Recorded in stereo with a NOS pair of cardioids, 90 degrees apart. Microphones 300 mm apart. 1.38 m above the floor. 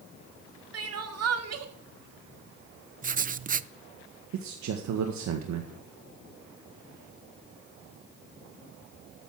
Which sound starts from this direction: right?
A man speaking, at 4.3 s.